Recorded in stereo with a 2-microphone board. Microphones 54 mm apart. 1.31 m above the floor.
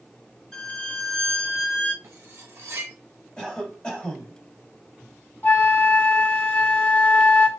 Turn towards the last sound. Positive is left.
turn(degrees=35)  # may be behind; listen again after turning